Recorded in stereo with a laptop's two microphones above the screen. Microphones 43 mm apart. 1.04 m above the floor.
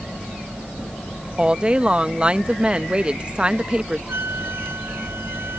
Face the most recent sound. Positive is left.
turn(degrees=-75)  # may be behind; listen again after turning